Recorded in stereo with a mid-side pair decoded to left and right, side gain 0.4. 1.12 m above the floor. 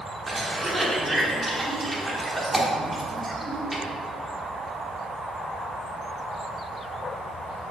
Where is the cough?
5° right, 1.2 m.